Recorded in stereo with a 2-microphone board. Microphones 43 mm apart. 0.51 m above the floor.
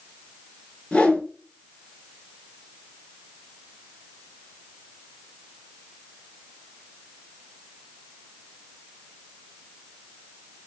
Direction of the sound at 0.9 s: 30° left (ahead or behind).